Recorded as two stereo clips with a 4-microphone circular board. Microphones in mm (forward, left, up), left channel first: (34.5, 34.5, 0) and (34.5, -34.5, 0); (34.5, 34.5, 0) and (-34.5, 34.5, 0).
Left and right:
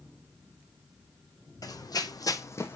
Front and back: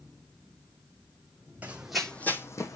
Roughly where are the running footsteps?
Left.